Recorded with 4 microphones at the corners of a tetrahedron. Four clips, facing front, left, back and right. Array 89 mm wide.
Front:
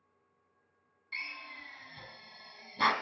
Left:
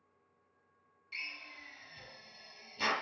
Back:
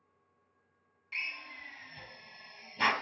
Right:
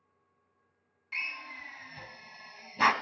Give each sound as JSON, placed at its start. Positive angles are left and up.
{"t": 1.1, "sound": "a drill", "azimuth_deg": -85, "distance_m": 1.1}